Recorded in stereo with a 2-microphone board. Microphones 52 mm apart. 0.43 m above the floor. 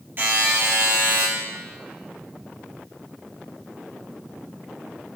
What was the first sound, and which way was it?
A buzzer, 45° right (ahead or behind).